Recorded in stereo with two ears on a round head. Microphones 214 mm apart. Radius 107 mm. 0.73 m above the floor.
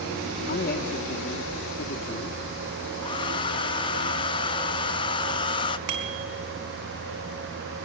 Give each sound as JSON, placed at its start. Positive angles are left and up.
{"t": 0.5, "sound": "a man speaking", "side_deg": 40, "distance_m": 1.2}
{"t": 3.0, "sound": "a hair dryer", "side_deg": 20, "distance_m": 0.7}
{"t": 5.9, "sound": "a bicycle bell", "side_deg": -65, "distance_m": 4.5}